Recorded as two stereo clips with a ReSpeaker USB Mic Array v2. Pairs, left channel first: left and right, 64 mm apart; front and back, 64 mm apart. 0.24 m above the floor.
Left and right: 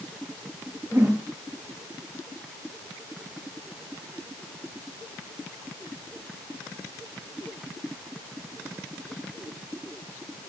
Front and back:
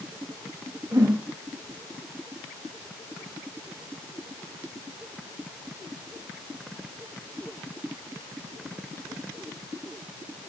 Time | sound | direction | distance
0.9 | a whoosh | 145° right | 6.5 m